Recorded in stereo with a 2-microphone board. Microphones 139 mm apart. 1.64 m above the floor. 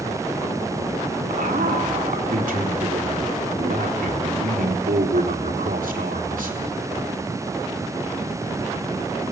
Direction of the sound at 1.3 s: 85° right.